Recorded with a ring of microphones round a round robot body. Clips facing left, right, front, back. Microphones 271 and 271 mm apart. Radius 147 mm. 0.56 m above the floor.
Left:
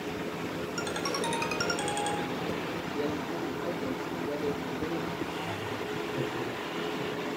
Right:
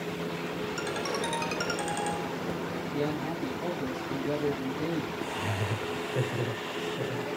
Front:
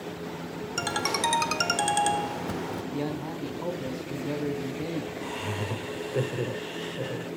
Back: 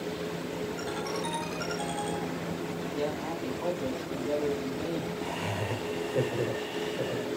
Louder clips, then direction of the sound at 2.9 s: Right 1 dB, front 1 dB; 55° right.